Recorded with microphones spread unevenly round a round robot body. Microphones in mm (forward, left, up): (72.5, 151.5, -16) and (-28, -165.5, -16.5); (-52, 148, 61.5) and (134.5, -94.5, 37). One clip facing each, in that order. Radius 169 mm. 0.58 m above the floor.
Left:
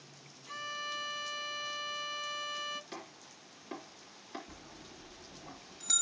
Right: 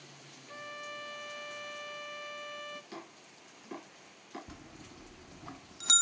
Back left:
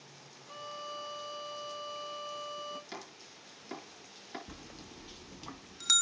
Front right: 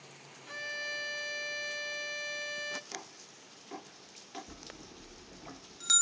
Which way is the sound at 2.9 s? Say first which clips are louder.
Right 1 dB, back left 1 dB; 165° left.